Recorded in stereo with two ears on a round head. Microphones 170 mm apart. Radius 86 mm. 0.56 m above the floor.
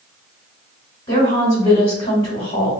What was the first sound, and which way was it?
A woman speaking, 25° left (ahead or behind).